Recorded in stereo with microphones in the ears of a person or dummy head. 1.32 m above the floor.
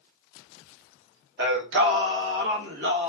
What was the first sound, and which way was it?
Singing, 70° right (ahead or behind).